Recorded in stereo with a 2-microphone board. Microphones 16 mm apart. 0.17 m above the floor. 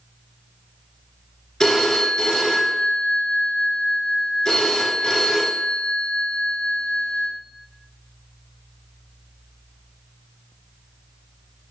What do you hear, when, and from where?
1.6 s a phone ringing: 40° left (ahead or behind), 1.4 m